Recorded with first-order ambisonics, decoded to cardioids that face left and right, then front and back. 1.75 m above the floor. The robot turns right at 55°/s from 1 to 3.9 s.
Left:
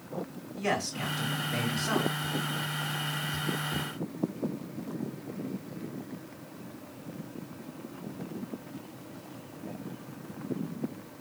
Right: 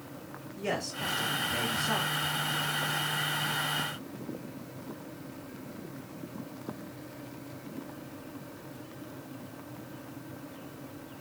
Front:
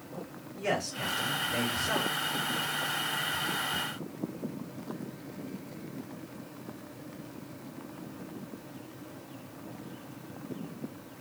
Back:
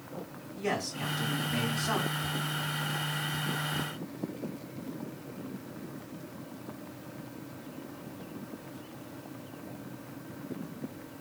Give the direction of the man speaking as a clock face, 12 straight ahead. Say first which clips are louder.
Left 3 dB, front 2 dB; 9 o'clock.